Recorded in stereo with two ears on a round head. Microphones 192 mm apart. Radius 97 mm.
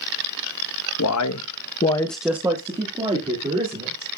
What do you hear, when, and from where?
1.0 s a man speaking: 75° left (ahead or behind), 1.1 m; by 4.1 s 35° right (ahead or behind), 3 m